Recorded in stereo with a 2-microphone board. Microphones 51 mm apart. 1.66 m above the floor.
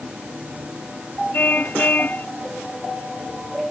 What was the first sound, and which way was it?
A car horn, 40° left (ahead or behind).